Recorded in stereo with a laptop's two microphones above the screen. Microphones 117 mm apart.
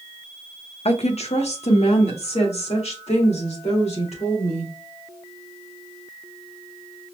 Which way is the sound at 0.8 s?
60° left (ahead or behind).